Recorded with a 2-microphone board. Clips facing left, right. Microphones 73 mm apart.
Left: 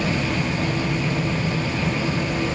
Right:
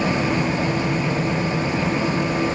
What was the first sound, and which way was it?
Only background noise.